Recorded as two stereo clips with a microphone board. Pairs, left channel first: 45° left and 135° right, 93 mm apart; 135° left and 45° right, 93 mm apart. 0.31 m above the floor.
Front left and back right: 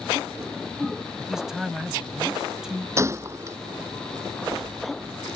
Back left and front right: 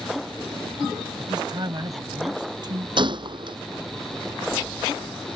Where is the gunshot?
75° right.